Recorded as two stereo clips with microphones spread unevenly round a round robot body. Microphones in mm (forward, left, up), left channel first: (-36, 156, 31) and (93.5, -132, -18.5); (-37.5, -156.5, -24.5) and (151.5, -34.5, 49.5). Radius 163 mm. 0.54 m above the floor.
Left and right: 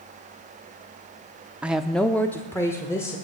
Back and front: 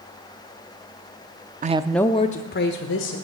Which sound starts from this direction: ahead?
A woman speaking, at 1.6 s.